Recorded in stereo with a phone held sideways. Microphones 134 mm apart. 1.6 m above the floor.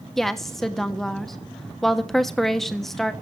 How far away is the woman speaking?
About 1.2 m.